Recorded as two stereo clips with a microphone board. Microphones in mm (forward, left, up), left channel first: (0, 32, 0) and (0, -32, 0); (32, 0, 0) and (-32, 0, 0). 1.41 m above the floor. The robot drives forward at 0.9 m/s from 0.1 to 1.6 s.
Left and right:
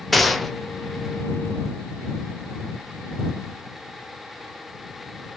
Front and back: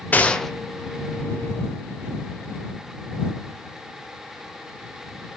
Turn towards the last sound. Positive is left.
turn(degrees=180)